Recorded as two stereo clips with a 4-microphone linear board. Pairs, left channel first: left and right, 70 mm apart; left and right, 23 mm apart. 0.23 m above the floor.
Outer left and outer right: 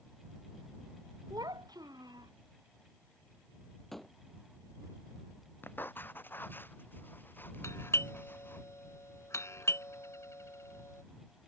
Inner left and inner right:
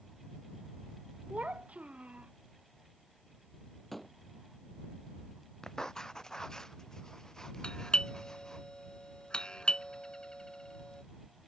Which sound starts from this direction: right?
A child speaking, at 1.3 s.